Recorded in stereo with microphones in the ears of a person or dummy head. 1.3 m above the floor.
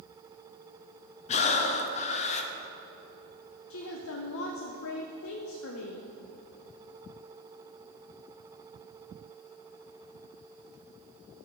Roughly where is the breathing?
Left.